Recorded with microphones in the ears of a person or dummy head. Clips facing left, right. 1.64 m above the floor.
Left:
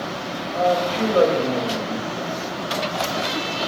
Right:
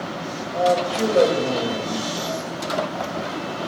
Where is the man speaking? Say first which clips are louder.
Even; 15° right (ahead or behind), 3 m.